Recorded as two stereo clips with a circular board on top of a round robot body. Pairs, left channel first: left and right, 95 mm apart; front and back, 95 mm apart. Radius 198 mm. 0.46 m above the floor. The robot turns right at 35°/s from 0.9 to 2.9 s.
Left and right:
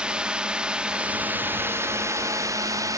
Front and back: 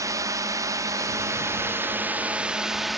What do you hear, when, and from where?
0.0 s a drone: 165° right; by 3.0 s 95° right